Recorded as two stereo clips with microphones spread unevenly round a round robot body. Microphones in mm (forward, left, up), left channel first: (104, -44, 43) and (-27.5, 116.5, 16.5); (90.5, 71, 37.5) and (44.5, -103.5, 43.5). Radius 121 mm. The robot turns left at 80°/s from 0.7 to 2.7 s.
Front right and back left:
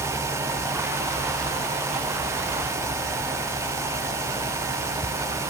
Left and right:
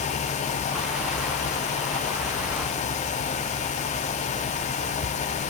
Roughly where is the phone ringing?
No phone ringing in this recording.